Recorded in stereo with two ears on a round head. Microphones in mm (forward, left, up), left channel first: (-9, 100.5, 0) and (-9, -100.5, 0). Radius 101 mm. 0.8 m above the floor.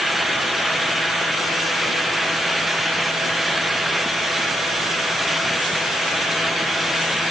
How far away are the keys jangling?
I don't hear keys jangling.